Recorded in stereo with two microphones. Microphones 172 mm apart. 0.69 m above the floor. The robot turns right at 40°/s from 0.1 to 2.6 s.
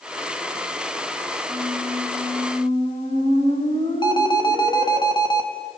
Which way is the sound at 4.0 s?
25° left (ahead or behind).